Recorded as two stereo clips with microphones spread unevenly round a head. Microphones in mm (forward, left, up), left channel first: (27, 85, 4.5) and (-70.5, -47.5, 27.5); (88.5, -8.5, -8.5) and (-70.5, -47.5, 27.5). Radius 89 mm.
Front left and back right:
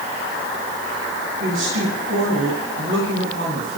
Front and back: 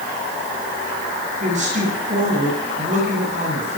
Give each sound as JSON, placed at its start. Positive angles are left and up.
{"t": 1.4, "sound": "a woman speaking", "azimuth_deg": -120, "distance_m": 8.5}